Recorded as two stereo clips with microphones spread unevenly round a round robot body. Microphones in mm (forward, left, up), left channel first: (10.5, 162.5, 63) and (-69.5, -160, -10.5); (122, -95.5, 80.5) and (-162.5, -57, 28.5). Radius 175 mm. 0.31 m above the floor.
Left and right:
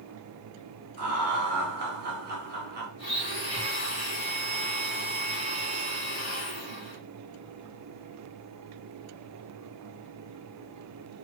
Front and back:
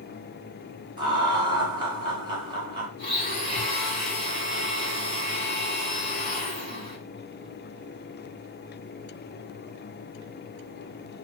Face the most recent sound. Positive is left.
turn(degrees=25)